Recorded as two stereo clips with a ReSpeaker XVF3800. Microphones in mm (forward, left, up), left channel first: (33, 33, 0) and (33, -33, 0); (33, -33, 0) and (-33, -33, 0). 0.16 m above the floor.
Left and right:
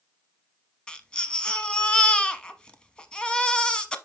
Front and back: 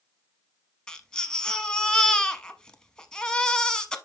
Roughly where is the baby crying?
Ahead left.